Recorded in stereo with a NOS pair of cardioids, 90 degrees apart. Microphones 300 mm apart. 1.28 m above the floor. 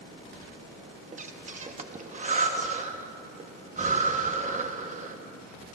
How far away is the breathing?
About 1.2 m.